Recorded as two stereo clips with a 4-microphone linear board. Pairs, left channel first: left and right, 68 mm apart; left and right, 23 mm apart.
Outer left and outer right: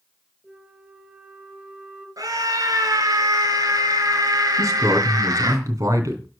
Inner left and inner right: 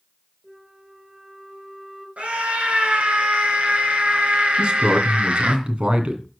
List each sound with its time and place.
0.4 s a flute: 10° right (ahead or behind), 6.5 m
2.2 s a scream: 60° right (ahead or behind), 4 m
4.6 s a man speaking: 55° right (ahead or behind), 2.5 m